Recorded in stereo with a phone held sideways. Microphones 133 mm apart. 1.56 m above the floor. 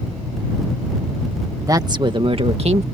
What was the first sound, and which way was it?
A woman speaking, 25° right (ahead or behind).